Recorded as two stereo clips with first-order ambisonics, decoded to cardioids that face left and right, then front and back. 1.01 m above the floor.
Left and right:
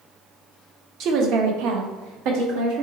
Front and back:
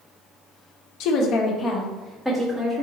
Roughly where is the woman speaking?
Ahead right.